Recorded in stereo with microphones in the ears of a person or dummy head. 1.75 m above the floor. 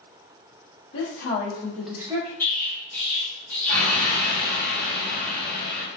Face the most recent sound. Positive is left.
turn(degrees=15)  # may be behind; listen again after turning